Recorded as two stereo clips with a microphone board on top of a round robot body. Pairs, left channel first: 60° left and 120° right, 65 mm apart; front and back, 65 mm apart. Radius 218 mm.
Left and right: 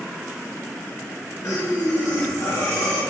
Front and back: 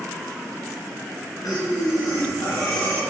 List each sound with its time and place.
1.4 s breathing: 25° left, 1.5 m